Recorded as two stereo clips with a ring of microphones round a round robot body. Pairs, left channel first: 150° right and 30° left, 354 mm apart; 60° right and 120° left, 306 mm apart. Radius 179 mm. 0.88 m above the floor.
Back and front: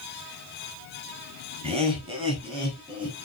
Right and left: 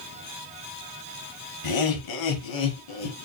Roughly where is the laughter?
Ahead right.